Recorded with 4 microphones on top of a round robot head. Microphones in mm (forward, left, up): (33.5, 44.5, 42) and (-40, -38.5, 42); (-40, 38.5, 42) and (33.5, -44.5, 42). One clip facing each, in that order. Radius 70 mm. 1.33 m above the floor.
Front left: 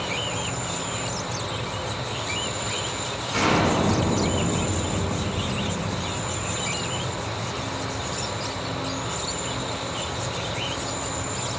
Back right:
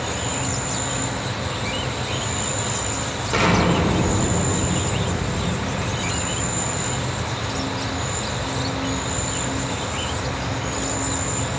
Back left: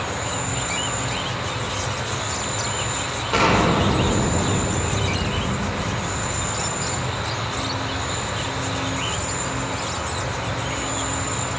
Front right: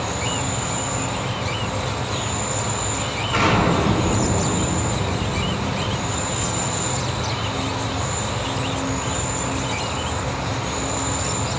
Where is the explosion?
165° right, 2.5 m.